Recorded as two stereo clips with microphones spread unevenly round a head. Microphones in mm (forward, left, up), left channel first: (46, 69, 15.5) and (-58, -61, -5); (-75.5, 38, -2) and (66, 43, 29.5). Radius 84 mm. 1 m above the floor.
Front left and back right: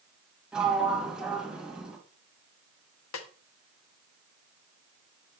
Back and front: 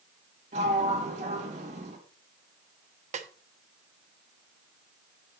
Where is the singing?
I don't hear singing.